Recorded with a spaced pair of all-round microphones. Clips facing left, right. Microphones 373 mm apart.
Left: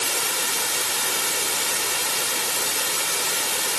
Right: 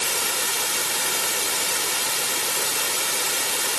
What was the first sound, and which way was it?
Only background noise.